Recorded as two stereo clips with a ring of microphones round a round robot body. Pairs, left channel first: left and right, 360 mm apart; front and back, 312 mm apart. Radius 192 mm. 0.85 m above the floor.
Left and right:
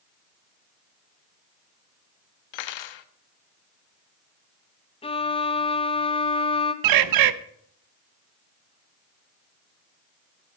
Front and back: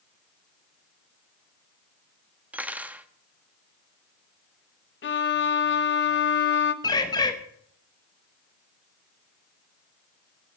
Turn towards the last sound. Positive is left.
turn(degrees=-75)